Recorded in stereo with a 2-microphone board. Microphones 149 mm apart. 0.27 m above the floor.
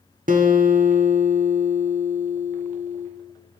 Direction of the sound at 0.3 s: 65° right (ahead or behind).